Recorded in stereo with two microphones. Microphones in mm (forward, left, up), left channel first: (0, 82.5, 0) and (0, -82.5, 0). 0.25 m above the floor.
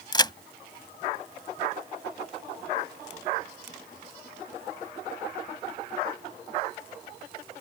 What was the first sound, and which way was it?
A crack, 25° left (ahead or behind).